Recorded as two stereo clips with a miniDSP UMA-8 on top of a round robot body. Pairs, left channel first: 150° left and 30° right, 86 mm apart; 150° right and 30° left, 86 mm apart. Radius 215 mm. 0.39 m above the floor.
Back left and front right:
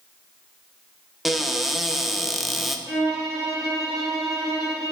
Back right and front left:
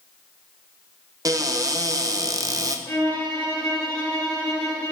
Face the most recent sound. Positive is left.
turn(degrees=-80)